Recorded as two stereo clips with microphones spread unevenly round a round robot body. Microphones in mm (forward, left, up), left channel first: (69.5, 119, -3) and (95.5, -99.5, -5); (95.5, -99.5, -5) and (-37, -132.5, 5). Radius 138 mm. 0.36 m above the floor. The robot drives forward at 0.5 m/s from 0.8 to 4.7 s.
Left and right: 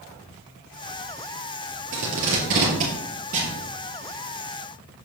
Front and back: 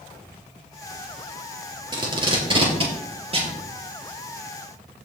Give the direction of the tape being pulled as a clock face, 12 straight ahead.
4 o'clock.